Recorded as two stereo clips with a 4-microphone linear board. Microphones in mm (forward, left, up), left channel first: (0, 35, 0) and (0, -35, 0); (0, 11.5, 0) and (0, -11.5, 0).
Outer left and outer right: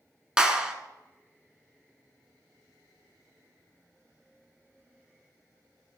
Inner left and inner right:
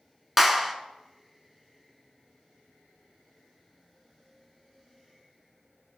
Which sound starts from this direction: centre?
A clap, at 0.4 s.